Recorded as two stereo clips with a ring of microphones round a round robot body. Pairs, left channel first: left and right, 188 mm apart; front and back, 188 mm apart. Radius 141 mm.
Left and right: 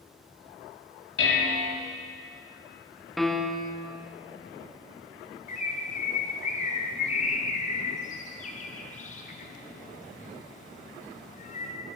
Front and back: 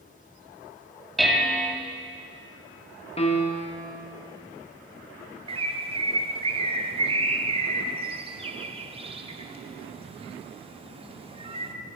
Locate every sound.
1.2 s dishes clattering: 90° left, 2 m
3.2 s a piano: straight ahead, 1.2 m
5.5 s a bird: 130° left, 1.2 m